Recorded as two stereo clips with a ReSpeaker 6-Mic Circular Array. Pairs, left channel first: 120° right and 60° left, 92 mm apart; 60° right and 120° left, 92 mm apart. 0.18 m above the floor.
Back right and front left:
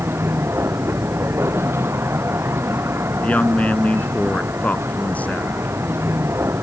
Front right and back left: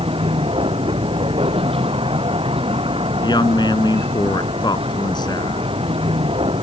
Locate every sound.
0.0 s a vehicle: 125° left
3.2 s a woman speaking: 50° right